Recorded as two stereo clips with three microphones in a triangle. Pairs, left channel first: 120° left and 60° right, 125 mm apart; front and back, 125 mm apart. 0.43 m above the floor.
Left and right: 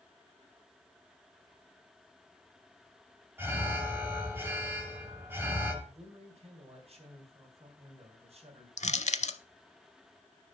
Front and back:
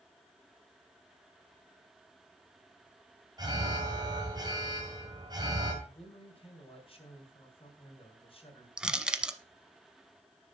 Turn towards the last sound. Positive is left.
turn(degrees=95)